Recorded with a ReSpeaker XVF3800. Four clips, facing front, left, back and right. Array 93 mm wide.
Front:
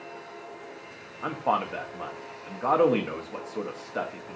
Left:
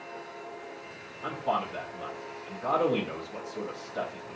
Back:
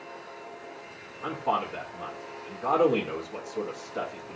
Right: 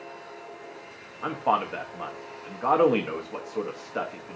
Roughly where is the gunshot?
No gunshot in this recording.